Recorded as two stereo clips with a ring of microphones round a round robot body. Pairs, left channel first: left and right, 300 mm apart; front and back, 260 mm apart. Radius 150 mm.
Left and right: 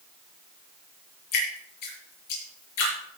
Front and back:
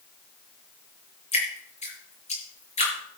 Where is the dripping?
65° left, 7 m.